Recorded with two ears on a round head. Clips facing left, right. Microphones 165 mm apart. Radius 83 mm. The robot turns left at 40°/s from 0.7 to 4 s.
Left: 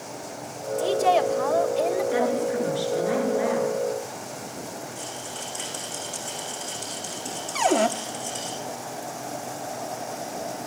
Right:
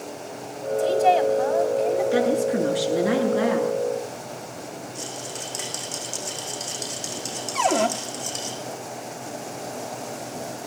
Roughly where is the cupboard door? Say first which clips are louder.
Even; centre.